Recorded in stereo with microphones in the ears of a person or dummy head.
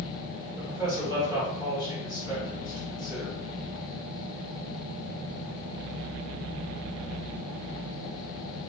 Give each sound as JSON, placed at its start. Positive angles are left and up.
{"t": 0.6, "sound": "a man speaking", "side_deg": -10, "distance_m": 1.6}